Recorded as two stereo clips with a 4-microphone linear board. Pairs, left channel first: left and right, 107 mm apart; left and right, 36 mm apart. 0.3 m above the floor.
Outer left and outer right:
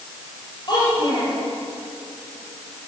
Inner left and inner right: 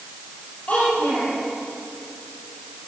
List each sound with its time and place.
0.7 s a child speaking: 40° left (ahead or behind), 6 m